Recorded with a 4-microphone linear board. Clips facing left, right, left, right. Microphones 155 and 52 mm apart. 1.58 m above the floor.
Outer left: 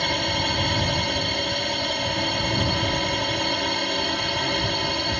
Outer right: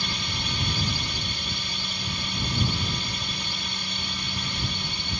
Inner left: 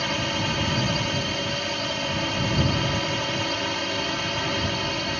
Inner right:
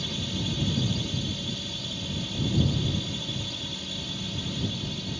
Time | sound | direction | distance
0.0 | a drone | 65° left (ahead or behind) | ?